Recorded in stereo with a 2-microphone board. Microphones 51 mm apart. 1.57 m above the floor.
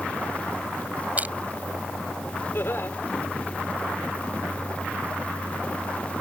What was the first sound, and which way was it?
Crushing, 30° right (ahead or behind).